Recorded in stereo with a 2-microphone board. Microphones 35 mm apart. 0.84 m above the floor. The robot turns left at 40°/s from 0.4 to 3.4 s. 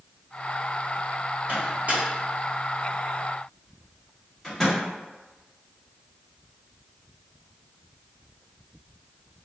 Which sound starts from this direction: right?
A microwave, at 1.5 s.